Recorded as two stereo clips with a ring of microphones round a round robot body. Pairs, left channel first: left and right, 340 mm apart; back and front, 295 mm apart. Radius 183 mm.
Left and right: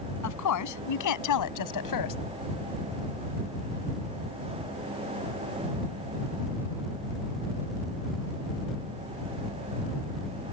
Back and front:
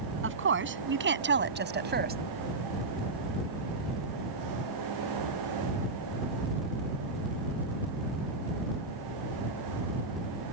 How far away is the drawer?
No drawer in this recording.